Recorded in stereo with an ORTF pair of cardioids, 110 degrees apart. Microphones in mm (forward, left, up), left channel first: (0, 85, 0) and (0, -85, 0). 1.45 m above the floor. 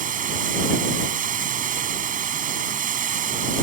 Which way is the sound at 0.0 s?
50° right.